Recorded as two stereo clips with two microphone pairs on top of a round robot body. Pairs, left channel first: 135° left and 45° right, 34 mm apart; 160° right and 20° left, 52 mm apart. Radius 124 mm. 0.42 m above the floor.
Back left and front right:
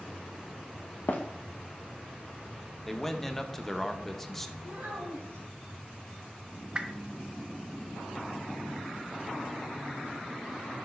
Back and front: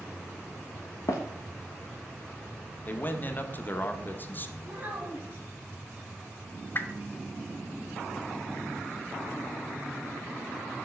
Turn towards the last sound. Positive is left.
turn(degrees=-115)